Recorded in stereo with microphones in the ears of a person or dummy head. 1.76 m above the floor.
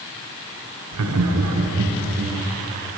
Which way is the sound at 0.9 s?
75° right (ahead or behind).